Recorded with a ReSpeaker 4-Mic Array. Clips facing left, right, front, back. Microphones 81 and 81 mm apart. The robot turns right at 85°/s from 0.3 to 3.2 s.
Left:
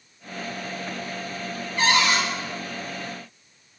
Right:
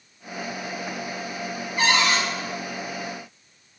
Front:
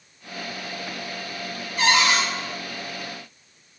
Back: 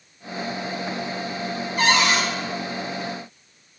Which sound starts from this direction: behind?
A cupboard door, at 1.8 s.